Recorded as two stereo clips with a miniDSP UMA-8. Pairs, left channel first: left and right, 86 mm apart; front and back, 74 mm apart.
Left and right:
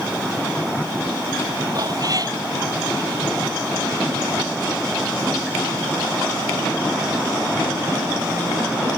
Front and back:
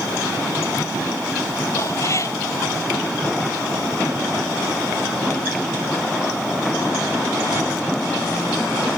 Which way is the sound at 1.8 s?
50° right.